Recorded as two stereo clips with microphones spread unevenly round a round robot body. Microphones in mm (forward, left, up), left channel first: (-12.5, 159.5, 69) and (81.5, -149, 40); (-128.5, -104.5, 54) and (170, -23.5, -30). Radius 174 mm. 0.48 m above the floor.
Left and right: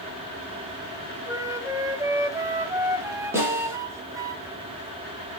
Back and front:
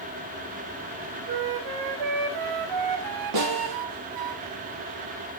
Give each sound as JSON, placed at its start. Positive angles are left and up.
{"t": 1.3, "sound": "a flute", "azimuth_deg": 5, "distance_m": 1.1}
{"t": 3.3, "sound": "a snare drum", "azimuth_deg": 10, "distance_m": 4.5}